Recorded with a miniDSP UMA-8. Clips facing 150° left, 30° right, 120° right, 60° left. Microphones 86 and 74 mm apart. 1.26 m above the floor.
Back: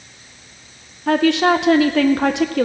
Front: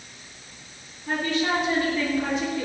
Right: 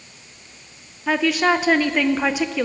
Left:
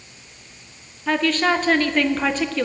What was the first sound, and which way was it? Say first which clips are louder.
A woman speaking: back 10 dB, right 1 dB; 160° left.